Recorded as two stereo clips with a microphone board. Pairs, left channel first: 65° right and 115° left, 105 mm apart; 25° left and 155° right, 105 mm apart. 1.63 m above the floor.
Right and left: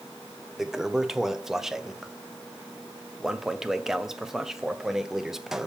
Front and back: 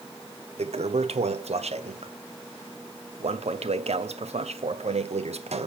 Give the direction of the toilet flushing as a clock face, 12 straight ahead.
5 o'clock.